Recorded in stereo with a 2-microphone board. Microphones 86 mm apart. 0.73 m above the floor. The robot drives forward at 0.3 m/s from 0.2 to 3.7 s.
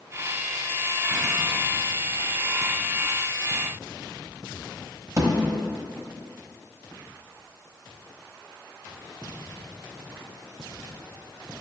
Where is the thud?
40° right (ahead or behind), 1.1 m.